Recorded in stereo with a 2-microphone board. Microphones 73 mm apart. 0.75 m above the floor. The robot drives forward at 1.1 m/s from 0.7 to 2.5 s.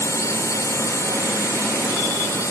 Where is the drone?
45° left (ahead or behind); by 2.5 s 40° left (ahead or behind).